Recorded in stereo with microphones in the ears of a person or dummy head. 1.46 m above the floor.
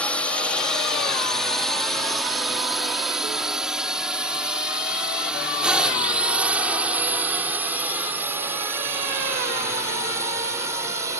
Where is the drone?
10° left (ahead or behind); by 11.2 s 15° right (ahead or behind).